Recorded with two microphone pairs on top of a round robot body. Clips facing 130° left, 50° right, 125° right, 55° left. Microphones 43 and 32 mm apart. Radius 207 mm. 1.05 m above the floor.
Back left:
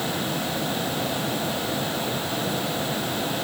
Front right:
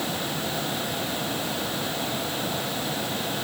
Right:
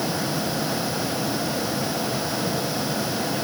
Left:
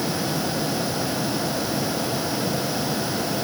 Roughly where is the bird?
No bird in this recording.